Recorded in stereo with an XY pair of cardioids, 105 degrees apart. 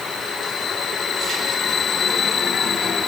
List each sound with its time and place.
Only background noise.